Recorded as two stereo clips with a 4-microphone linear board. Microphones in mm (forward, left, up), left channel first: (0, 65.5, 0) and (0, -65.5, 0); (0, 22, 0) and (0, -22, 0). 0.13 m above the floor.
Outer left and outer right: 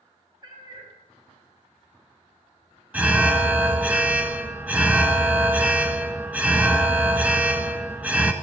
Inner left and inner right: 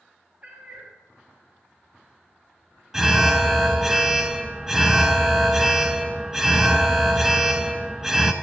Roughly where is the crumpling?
I don't hear crumpling.